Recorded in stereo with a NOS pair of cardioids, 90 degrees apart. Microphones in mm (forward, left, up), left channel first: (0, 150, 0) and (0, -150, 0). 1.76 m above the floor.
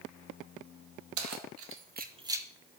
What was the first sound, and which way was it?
Keys jangling, 65° right.